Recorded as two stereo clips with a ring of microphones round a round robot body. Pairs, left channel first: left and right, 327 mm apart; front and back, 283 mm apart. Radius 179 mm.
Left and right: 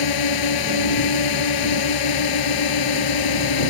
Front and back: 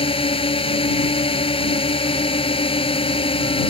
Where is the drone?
70° left.